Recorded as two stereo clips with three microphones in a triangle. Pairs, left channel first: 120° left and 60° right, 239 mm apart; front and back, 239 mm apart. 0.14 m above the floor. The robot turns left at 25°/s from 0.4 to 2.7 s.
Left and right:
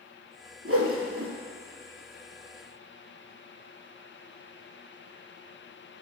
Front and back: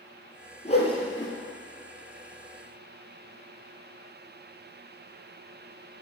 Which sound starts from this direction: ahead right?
A whoosh, at 0.7 s.